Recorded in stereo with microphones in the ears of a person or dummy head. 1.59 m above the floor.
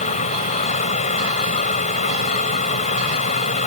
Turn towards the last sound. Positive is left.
turn(degrees=40)  # may be behind; listen again after turning